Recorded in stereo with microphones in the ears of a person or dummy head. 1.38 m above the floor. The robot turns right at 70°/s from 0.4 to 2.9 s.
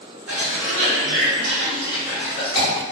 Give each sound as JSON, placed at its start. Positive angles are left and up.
{"t": 0.3, "sound": "a cough", "side_deg": -60, "distance_m": 1.2}